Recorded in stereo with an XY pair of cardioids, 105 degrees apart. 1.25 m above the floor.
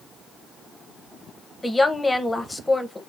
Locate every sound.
1.6 s a woman speaking: 15° left, 0.7 m